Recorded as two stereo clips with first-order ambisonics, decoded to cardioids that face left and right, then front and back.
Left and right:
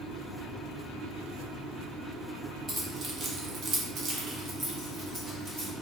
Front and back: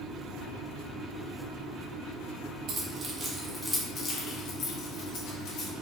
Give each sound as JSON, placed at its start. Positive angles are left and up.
{"t": 2.7, "sound": "keys jangling", "azimuth_deg": -150, "distance_m": 1.1}